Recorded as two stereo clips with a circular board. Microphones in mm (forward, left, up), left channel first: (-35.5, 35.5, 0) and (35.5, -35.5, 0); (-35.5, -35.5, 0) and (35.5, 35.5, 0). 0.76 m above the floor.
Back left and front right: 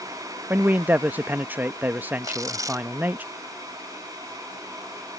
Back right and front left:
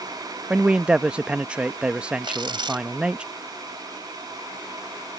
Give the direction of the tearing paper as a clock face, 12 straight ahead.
12 o'clock.